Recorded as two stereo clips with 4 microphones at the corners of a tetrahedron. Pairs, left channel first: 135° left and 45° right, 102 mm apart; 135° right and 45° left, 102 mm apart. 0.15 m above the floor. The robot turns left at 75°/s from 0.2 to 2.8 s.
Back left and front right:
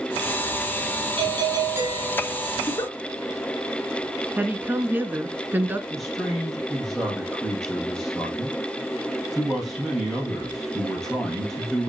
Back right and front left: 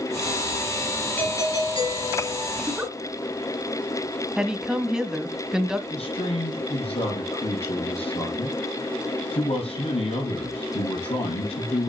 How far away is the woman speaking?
About 1.2 m.